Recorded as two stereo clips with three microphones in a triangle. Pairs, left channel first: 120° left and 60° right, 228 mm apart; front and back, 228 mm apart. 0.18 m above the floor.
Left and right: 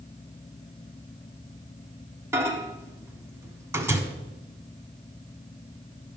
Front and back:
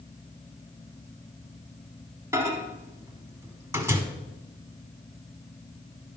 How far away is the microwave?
About 1.3 m.